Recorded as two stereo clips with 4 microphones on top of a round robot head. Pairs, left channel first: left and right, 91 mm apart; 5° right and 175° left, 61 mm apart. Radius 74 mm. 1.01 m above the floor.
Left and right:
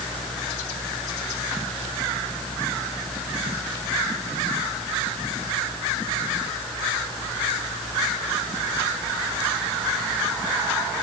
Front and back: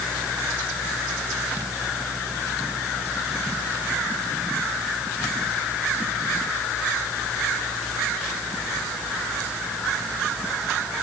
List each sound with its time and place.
Only background noise.